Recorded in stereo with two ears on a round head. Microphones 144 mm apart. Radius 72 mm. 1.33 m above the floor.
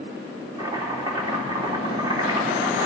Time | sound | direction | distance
0.6 | chopping | 25° right (ahead or behind) | 2.5 m